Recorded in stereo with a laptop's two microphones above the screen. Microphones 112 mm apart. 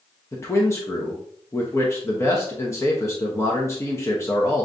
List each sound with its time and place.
0.3 s a man speaking: 25° left (ahead or behind), 0.6 m